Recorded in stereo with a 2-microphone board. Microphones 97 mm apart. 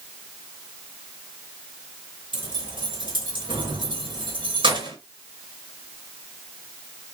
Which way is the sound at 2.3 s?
60° right (ahead or behind).